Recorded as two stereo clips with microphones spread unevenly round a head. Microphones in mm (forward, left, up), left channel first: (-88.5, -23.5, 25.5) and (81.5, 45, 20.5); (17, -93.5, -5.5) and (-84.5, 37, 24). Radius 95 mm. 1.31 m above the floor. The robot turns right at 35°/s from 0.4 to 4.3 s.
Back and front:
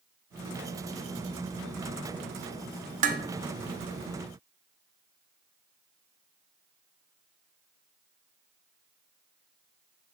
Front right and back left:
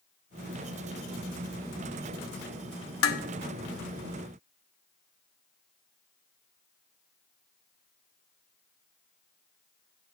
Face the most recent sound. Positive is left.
turn(degrees=15)